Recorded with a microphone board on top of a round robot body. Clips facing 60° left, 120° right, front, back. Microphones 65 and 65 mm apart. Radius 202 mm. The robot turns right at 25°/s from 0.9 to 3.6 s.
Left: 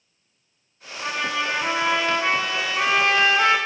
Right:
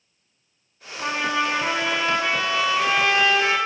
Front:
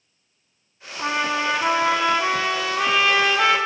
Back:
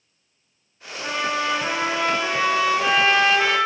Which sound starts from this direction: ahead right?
A trumpet, at 1.0 s.